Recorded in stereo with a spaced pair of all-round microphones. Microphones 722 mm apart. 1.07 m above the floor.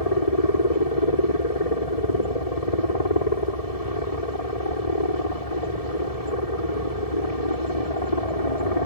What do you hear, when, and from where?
0.0 s a helicopter: 50° left (ahead or behind)